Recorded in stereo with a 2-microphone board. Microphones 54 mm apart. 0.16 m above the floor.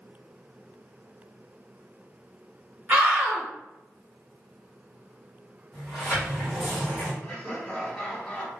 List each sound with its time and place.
2.9 s a scream: 30° right (ahead or behind), 1.1 m
5.7 s a sliding door: 10° right (ahead or behind), 1.7 m
7.2 s laughter: 5° left (ahead or behind), 1.4 m